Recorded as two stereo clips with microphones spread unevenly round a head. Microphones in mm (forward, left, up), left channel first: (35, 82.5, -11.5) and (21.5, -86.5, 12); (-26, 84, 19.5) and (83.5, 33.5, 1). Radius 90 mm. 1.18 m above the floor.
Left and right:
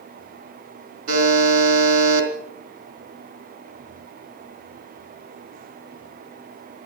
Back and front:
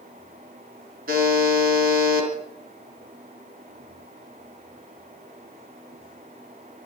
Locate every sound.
1.1 s a buzzer: 60° right, 3.5 m